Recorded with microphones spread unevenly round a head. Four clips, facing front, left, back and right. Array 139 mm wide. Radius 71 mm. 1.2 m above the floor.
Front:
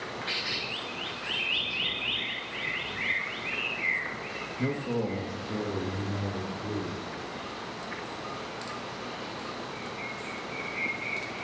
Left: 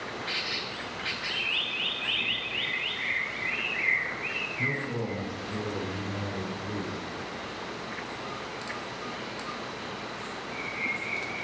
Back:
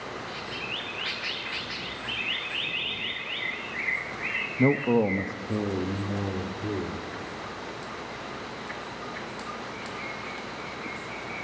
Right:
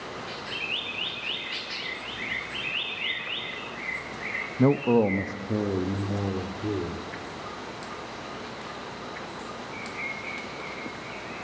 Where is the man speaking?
125° right, 0.9 m; by 7.0 s 115° right, 3.5 m.